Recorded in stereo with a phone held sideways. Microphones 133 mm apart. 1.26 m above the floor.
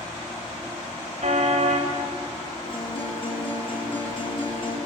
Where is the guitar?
45° left (ahead or behind), 7 m.